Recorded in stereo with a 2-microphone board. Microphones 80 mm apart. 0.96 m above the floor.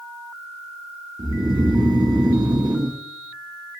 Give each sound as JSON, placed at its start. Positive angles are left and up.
{"t": 1.2, "sound": "snoring", "side_deg": -60, "distance_m": 1.0}